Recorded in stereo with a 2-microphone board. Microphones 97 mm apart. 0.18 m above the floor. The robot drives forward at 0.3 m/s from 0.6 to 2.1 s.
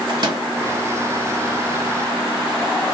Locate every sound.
0.1 s a microwave: 45° right (ahead or behind), 2.0 m